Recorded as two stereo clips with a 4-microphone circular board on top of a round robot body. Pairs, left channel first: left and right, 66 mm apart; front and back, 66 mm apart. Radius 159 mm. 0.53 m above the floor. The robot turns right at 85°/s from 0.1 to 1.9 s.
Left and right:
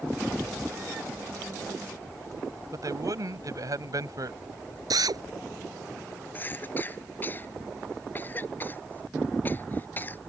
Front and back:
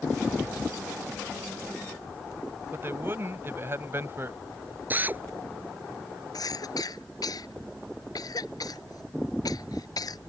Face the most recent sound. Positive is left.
turn(degrees=25)